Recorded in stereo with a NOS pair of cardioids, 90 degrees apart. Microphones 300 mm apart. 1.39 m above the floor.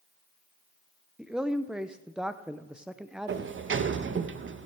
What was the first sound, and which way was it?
A man speaking, straight ahead.